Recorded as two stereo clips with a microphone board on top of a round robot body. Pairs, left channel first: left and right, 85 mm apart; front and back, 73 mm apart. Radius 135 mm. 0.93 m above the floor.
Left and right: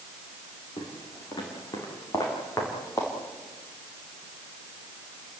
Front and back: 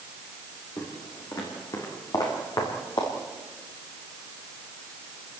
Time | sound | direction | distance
0.8 | footsteps | 50° left | 4 m